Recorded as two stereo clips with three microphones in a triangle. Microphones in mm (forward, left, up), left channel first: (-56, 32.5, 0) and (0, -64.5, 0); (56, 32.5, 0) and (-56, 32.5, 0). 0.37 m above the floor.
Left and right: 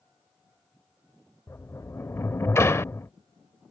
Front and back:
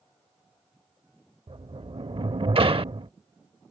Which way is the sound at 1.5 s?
Straight behind.